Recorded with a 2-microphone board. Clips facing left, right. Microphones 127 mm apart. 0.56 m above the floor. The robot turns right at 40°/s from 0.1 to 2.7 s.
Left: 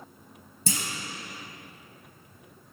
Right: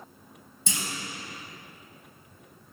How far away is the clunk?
About 2 m.